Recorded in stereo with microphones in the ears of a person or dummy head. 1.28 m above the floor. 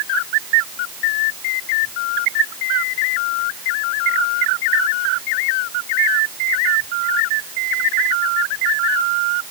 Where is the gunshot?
No gunshot in this recording.